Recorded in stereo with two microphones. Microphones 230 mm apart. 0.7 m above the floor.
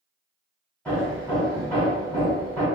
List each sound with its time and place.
0.8 s hammering: 5° left (ahead or behind), 1.7 m